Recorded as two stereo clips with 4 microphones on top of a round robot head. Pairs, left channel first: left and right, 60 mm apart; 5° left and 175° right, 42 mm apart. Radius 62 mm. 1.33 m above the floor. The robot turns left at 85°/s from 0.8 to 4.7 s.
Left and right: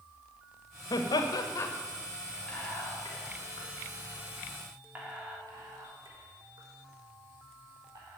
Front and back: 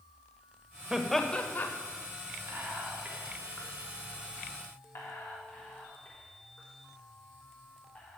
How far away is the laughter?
About 1.6 m.